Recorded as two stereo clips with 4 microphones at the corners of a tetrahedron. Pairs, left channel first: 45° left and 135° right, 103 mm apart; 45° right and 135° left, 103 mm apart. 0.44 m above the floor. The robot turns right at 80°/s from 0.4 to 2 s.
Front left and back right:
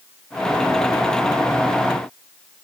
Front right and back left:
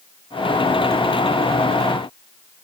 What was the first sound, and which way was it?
Only background noise.